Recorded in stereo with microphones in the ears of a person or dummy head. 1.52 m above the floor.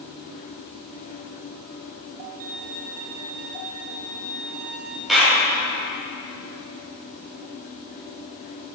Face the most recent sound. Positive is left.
turn(degrees=0)  # may be behind; listen again after turning